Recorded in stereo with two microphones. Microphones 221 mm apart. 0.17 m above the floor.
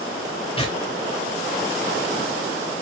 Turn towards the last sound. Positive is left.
turn(degrees=25)  # may be behind; listen again after turning